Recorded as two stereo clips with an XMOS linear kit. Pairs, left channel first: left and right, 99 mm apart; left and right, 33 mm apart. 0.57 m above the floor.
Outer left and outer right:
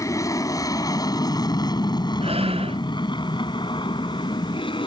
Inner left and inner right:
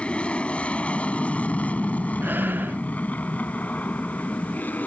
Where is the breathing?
80° right.